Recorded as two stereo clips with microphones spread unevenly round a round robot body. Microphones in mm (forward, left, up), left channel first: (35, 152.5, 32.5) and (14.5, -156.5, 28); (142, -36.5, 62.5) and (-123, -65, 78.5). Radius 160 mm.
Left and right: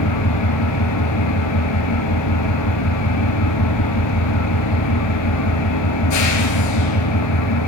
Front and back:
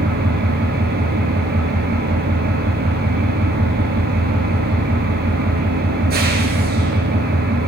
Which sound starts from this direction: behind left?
An engine running, at 0.0 s.